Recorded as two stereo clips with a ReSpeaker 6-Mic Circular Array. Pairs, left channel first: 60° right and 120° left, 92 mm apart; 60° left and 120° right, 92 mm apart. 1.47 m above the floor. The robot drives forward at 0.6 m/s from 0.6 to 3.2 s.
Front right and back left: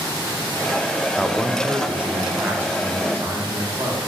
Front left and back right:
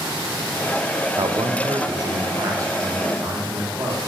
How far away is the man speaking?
About 0.6 m.